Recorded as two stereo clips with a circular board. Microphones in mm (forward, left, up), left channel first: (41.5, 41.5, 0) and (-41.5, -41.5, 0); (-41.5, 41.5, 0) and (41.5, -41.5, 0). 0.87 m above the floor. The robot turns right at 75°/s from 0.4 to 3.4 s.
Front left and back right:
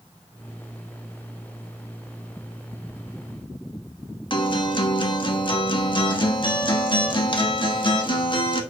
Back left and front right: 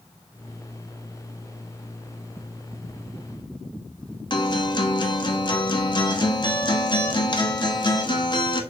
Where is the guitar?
90° left, 1.1 m.